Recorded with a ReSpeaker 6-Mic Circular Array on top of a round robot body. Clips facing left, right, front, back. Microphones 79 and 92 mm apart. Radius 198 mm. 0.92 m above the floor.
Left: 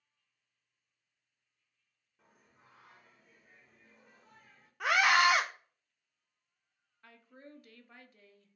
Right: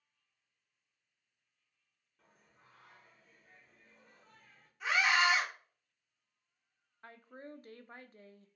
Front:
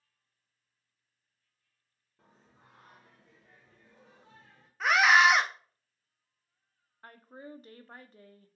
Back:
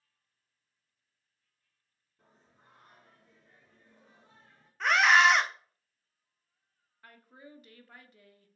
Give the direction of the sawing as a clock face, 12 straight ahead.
No sawing in this recording.